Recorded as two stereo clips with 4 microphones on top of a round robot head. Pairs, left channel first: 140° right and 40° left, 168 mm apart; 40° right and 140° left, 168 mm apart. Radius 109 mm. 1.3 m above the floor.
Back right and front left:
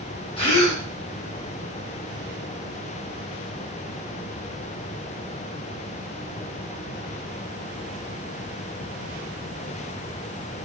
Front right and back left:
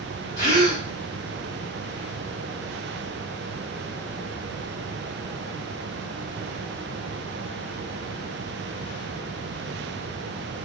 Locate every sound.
0.4 s a gasp: 80° right, 2.5 m